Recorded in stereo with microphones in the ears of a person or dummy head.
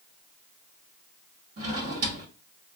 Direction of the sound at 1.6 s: 45° right (ahead or behind).